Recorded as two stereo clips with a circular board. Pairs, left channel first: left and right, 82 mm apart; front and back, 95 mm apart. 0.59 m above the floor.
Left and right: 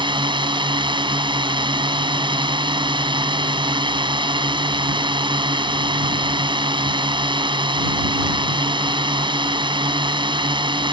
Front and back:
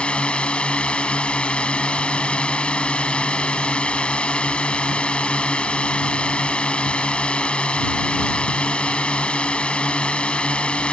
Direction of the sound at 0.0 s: 80° right.